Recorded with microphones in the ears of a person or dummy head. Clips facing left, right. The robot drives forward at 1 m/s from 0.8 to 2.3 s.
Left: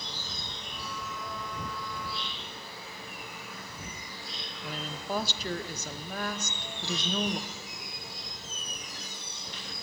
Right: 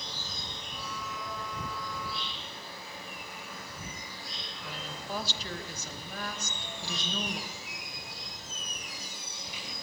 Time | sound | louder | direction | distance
0.0 | an insect | left 1 dB | 5° right (ahead or behind) | 6 m
4.6 | a woman speaking | left 4 dB | 45° left (ahead or behind) | 0.8 m
6.4 | a squeak | left 2 dB | 10° right (ahead or behind) | 0.8 m